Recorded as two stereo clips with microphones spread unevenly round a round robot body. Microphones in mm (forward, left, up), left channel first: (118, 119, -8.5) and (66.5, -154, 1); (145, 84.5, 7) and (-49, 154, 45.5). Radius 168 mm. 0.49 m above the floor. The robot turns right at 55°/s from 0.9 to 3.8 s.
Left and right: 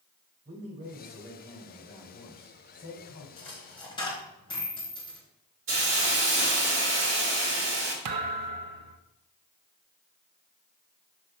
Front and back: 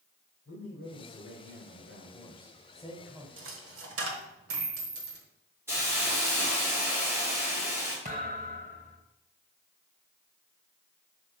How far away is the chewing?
I don't hear chewing.